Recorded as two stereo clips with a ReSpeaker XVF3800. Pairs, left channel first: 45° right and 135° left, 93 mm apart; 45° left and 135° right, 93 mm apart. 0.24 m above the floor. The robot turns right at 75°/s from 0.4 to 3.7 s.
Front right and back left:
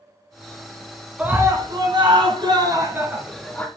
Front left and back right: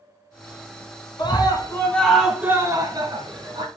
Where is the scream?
60° left, 2.5 m; by 3.7 s 115° right, 2.5 m.